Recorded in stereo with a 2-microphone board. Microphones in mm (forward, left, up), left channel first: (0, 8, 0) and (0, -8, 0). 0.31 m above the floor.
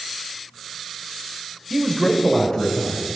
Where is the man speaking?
15° right (ahead or behind), 1.3 m; by 3.1 s 50° left (ahead or behind), 2.5 m.